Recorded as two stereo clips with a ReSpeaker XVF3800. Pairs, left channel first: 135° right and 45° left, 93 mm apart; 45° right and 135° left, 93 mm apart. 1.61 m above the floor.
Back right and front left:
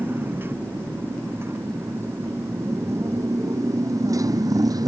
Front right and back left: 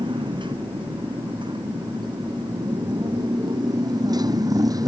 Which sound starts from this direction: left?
A motorcycle, at 0.0 s.